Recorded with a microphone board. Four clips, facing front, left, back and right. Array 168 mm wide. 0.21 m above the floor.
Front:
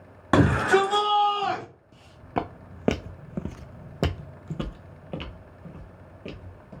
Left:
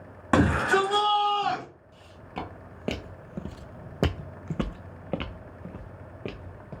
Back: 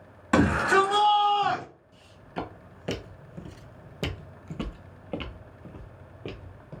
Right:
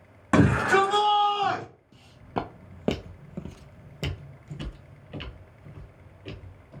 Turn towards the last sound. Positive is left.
turn(degrees=105)